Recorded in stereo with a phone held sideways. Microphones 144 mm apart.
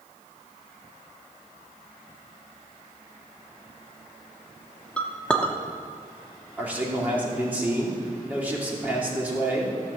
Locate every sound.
5.0 s a clink: 10° left (ahead or behind), 1.0 m
6.6 s a man speaking: 10° right (ahead or behind), 2.5 m